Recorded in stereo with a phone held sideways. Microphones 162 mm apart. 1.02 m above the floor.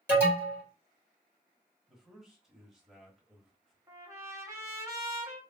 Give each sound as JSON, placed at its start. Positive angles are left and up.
{"t": 0.1, "sound": "an alarm", "side_deg": -10, "distance_m": 1.7}
{"t": 1.9, "sound": "a man speaking", "side_deg": -5, "distance_m": 1.2}
{"t": 3.9, "sound": "a trumpet", "side_deg": -20, "distance_m": 1.0}